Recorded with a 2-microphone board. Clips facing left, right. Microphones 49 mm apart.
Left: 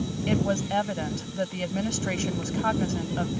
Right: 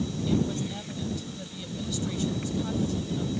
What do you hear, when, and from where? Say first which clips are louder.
0.3 s a woman speaking: left 4 dB; 70° left (ahead or behind)